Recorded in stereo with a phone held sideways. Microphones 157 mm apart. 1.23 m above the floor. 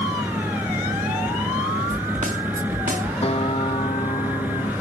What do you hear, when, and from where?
0.0 s a fan: 10° right (ahead or behind)
1.9 s a snare drum: 55° right (ahead or behind)
3.2 s a guitar: 40° left (ahead or behind)